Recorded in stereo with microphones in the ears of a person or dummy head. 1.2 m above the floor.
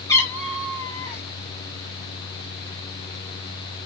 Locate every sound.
0.1 s a cat meowing: 10° left (ahead or behind), 1.8 m